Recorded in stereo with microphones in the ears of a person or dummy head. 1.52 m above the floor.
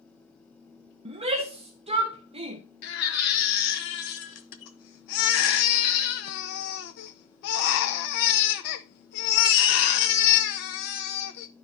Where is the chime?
No chime in this recording.